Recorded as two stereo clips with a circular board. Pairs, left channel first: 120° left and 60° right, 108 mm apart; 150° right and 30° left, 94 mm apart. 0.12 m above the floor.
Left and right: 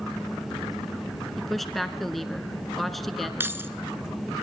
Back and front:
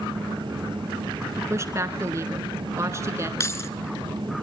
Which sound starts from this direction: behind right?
Keys jangling, at 3.4 s.